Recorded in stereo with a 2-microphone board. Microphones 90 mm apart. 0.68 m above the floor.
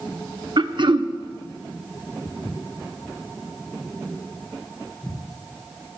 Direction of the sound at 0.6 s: 65° right (ahead or behind).